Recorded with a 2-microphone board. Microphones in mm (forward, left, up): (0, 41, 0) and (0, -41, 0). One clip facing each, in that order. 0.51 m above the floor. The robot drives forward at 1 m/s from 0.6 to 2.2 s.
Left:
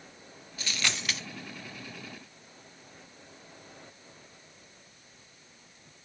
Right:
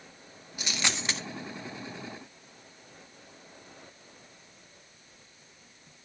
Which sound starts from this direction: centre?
A dropped coin, at 0.6 s.